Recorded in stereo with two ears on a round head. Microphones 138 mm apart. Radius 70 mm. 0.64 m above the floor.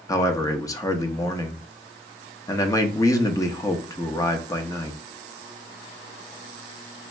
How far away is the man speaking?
About 0.6 m.